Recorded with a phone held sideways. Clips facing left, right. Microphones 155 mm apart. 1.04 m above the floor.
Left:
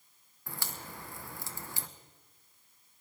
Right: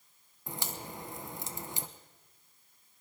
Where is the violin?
I don't hear a violin.